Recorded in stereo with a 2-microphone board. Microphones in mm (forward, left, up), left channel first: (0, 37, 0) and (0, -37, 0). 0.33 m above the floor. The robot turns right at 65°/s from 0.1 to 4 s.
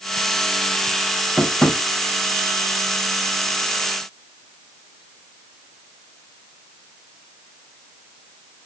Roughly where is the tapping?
Centre.